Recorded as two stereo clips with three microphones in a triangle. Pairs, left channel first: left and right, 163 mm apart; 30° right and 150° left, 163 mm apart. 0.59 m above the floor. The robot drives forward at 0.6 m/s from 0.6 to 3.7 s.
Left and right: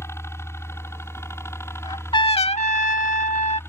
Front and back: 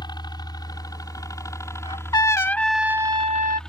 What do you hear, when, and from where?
0.0 s a helicopter: 20° left; by 3.7 s 50° left
1.8 s a trumpet: 25° left; by 3.6 s 135° left